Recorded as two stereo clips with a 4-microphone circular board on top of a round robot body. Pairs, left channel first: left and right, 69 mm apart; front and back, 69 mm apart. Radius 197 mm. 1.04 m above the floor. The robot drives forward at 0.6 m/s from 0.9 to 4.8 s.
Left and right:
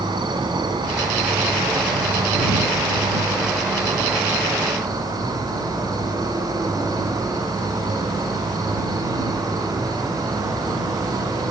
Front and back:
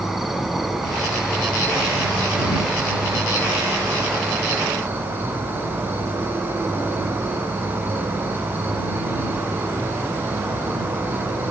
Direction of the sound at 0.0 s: 95° right.